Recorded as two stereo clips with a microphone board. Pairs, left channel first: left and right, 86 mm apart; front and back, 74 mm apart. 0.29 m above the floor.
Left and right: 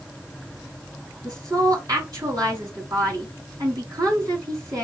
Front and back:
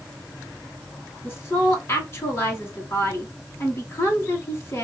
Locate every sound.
1.2 s a woman speaking: 50° right, 4.5 m